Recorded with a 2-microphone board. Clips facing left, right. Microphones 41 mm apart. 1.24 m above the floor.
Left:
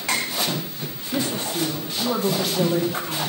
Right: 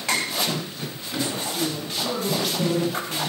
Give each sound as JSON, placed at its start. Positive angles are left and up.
{"t": 1.1, "sound": "a woman speaking", "side_deg": 55, "distance_m": 0.8}